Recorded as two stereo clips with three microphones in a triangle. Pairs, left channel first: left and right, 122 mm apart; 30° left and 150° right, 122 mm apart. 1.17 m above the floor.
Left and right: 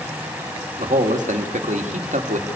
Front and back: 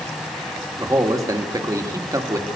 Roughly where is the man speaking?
Right.